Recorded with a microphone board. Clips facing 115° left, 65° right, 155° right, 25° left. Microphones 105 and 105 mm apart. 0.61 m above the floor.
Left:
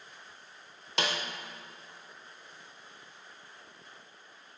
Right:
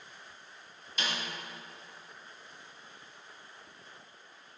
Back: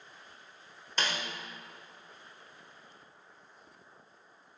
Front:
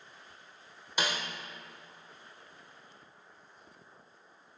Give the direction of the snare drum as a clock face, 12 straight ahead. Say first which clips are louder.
Left 4 dB, front 1 dB; 9 o'clock.